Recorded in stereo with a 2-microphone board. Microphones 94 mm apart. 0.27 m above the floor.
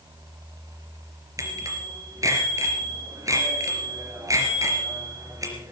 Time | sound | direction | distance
1.4 | a bicycle bell | 35° right (ahead or behind) | 3.5 m